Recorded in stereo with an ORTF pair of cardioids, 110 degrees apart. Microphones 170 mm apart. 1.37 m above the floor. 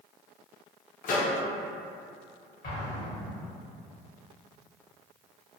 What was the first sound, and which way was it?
A microwave, 55° left.